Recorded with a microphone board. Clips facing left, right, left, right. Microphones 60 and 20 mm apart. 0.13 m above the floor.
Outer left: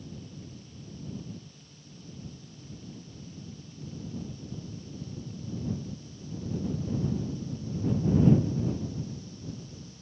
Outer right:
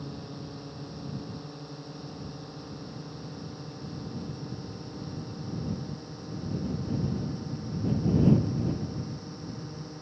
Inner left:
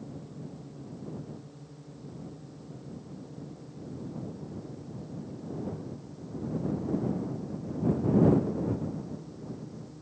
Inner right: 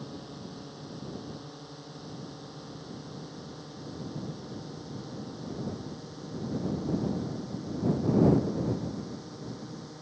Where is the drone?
60° right (ahead or behind); by 10.0 s 50° right (ahead or behind).